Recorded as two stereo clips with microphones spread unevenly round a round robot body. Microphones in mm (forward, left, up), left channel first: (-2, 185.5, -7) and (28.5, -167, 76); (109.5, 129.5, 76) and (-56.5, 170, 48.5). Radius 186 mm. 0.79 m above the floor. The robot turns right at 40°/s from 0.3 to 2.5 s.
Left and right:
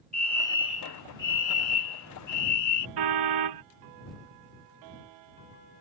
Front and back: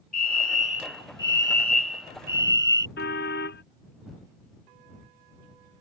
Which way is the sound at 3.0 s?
65° right.